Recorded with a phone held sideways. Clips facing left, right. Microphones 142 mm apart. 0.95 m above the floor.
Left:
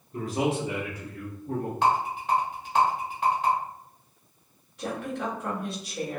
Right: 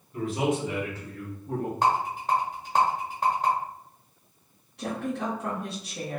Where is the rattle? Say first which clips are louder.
Left 1 dB; 45° right (ahead or behind), 1.2 m.